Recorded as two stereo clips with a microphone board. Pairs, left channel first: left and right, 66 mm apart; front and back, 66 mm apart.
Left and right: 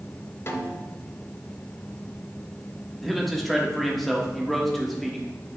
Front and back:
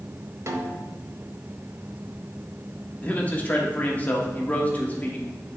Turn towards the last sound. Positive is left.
turn(degrees=5)